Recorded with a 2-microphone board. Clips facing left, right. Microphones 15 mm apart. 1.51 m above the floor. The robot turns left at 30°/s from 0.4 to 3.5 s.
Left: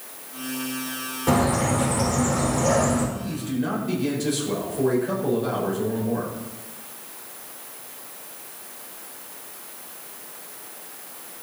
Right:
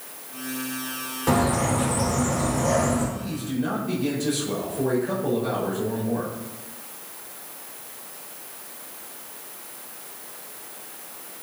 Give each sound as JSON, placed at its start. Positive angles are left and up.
{"t": 1.3, "sound": "a bird", "azimuth_deg": -170, "distance_m": 5.0}
{"t": 3.1, "sound": "a man speaking", "side_deg": 0, "distance_m": 5.5}